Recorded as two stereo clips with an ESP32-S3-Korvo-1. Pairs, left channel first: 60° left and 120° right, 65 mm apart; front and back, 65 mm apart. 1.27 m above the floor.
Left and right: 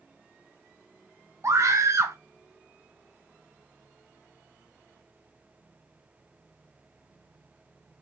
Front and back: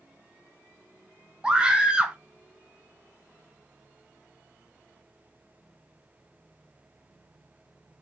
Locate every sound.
1.4 s a scream: 110° right, 0.7 m